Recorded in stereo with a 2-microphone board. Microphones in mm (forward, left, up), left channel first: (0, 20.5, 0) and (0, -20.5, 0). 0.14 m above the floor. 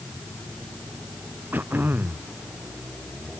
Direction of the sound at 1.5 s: 50° right (ahead or behind).